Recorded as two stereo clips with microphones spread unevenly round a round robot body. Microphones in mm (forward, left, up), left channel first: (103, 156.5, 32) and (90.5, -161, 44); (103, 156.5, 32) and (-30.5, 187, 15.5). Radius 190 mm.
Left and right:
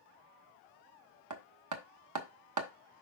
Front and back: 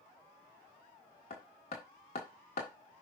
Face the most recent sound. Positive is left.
turn(degrees=-65)